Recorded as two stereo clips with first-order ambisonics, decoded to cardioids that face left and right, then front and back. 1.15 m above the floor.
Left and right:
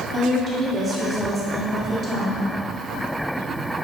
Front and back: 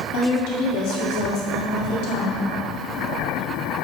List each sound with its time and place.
0.1 s a woman speaking: 20° right, 2 m